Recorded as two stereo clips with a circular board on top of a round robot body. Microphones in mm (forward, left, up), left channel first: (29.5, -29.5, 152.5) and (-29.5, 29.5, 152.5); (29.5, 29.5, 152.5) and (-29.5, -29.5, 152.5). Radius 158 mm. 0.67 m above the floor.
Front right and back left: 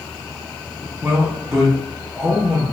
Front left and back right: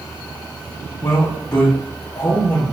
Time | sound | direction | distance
1.0 | a man speaking | 55° left | 1.4 m